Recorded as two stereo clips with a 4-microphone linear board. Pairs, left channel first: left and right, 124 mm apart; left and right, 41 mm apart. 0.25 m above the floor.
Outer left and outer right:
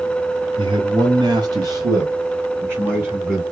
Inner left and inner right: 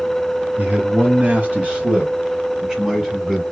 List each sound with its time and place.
0.6 s a man speaking: 40° right (ahead or behind), 1.7 m; by 3.4 s 15° right (ahead or behind), 2.5 m